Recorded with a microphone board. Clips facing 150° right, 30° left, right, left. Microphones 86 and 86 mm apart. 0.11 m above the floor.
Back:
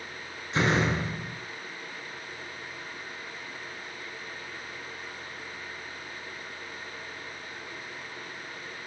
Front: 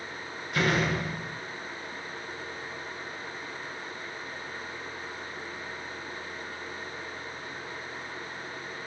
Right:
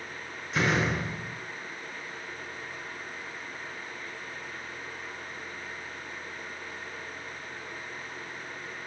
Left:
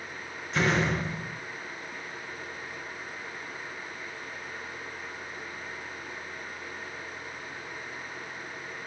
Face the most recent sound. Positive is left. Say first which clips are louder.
# back 1 dB, left 1 dB
turn(degrees=-175)